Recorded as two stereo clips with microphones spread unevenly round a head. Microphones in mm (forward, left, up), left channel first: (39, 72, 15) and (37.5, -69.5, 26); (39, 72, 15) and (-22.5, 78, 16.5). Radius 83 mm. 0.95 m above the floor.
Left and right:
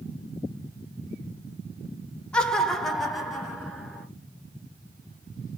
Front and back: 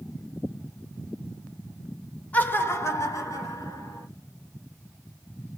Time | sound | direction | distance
2.3 | laughter | 20° left | 0.9 m